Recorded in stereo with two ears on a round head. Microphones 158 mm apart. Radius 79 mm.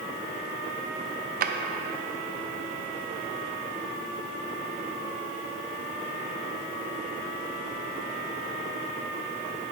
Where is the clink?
I don't hear a clink.